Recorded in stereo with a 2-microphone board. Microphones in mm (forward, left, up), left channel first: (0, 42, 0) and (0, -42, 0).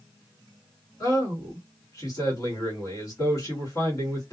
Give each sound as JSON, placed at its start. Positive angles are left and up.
{"t": 1.0, "sound": "a man speaking", "side_deg": 40, "distance_m": 1.6}